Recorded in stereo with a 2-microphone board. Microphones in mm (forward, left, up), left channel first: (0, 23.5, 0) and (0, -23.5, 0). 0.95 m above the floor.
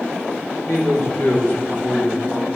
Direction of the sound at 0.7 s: 60° left (ahead or behind).